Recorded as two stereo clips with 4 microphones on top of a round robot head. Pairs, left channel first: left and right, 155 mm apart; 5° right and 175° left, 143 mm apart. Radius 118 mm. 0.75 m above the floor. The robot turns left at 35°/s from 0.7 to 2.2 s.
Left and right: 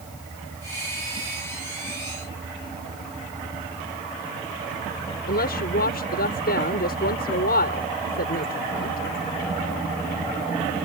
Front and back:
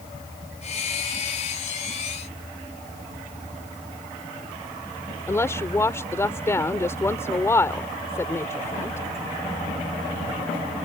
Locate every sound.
5.3 s a woman speaking: 65° left